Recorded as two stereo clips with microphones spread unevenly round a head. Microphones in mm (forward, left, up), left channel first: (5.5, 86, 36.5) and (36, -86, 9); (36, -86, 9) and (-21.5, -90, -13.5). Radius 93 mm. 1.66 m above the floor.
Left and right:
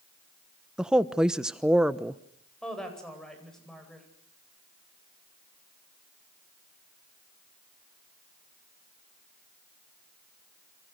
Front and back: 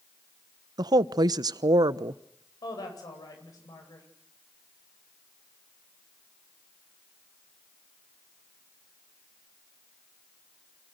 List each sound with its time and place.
0.8 s a woman speaking: 170° right, 1.0 m
2.6 s a woman speaking: 15° left, 9 m